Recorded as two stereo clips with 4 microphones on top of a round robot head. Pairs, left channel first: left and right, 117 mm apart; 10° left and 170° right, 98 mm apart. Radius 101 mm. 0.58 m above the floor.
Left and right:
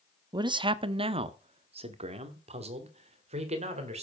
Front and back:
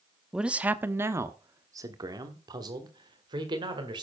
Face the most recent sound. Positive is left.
turn(degrees=-125)